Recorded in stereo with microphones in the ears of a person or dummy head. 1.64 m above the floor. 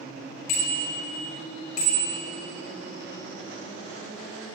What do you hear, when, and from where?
0.5 s a bicycle bell: 55° left (ahead or behind), 3.5 m